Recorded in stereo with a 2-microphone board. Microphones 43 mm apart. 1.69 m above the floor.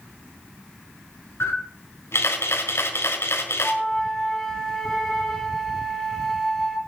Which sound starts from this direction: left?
A camera shutter, at 1.4 s.